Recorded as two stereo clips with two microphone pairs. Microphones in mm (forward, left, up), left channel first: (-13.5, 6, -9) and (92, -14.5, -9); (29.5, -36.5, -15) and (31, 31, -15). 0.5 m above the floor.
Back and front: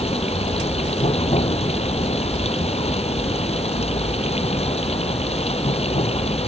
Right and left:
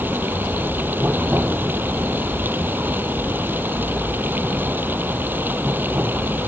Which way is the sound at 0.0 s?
150° left.